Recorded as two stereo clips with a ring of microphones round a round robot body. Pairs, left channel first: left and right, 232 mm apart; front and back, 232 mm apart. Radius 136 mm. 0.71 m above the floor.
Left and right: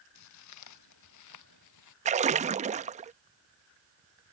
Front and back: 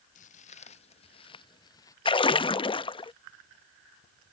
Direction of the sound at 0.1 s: 65° left.